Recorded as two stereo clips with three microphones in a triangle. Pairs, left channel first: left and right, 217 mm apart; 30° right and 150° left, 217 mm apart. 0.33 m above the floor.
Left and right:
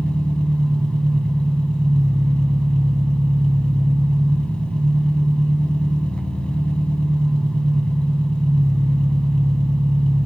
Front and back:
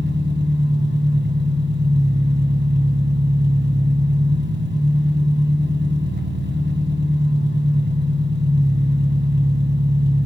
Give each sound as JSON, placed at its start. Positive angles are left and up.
{"t": 0.0, "sound": "an engine running", "azimuth_deg": 175, "distance_m": 2.5}